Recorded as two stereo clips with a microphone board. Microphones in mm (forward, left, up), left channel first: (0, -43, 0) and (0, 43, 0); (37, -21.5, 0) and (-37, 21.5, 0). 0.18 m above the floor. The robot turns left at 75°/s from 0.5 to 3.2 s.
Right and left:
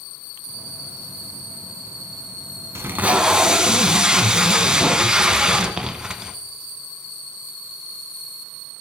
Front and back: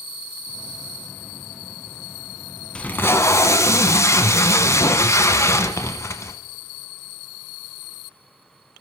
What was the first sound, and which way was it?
Tape being pulled, 45° left.